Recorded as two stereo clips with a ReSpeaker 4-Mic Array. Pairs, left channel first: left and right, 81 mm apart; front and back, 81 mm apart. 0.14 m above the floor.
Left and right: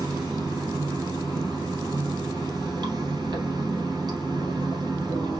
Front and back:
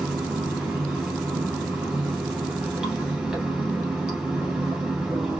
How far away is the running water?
About 1.9 m.